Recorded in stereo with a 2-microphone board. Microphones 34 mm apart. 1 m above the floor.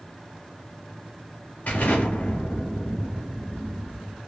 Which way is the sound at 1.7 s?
60° left (ahead or behind).